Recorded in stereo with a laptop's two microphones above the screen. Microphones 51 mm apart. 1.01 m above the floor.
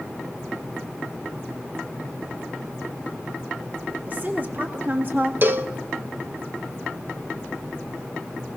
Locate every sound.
4.1 s a woman speaking: 35° right (ahead or behind), 2 m; by 5.3 s 40° right (ahead or behind), 1.5 m
5.4 s a cowbell: 45° right (ahead or behind), 0.7 m